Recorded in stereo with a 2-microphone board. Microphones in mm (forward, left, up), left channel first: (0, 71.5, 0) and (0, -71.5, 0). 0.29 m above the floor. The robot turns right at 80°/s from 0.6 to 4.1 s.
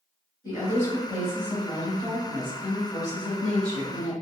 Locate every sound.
0.4 s a woman speaking: 135° left, 1.7 m; by 4.1 s 55° left, 1.7 m